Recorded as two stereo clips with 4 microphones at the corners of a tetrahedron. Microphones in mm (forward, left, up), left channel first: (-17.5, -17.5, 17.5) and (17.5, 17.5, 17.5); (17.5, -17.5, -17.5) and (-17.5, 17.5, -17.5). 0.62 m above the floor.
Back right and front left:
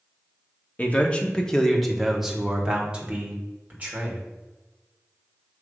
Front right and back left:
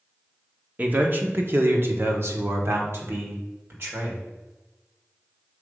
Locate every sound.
0.8 s a man speaking: straight behind, 1.0 m; by 4.2 s 100° left, 1.9 m